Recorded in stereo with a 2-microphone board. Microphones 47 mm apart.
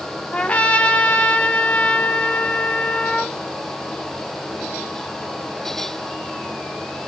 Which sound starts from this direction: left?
A trumpet, at 0.3 s.